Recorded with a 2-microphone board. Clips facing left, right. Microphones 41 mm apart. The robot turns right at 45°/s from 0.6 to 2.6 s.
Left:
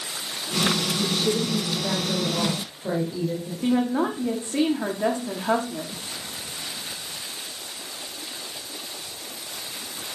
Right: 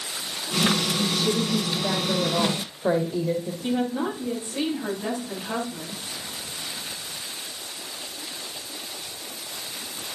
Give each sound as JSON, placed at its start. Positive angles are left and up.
{"t": 1.0, "sound": "a woman speaking", "azimuth_deg": 150, "distance_m": 4.0}
{"t": 3.6, "sound": "a woman speaking", "side_deg": 65, "distance_m": 6.0}